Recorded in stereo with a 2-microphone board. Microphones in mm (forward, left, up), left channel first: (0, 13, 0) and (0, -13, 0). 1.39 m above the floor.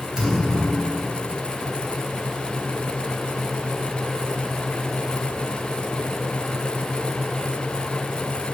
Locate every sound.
0.2 s a thud: 15° right (ahead or behind), 2.5 m